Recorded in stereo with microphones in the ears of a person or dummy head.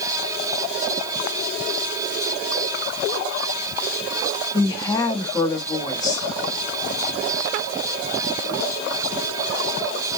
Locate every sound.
4.5 s a woman speaking: 30° left (ahead or behind), 1.0 m